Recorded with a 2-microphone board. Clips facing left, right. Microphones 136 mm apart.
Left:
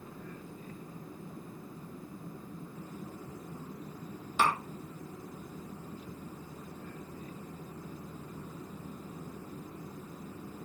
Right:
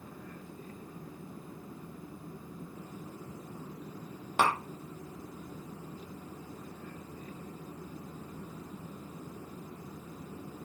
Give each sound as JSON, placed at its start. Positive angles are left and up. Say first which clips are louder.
{"t": 4.4, "sound": "tapping", "louder": "right 1 dB", "side_deg": -65, "distance_m": 1.1}